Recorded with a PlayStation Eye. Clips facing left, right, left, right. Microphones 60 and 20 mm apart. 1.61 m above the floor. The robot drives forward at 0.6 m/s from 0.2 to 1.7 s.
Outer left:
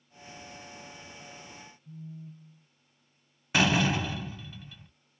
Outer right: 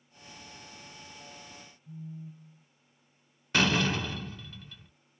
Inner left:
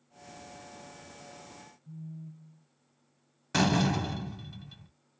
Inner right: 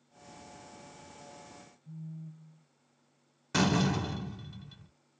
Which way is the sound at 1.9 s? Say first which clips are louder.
Outer right 2 dB, even; 5° left (ahead or behind).